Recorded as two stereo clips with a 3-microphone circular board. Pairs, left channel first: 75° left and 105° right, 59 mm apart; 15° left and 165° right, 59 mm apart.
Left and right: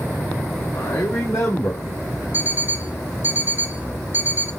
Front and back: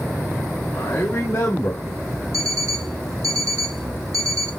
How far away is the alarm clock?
About 0.8 m.